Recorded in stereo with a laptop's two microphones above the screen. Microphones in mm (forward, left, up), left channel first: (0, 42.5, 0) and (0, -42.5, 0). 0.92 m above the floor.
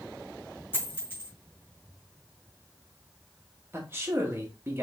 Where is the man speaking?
30° right (ahead or behind), 1.1 m.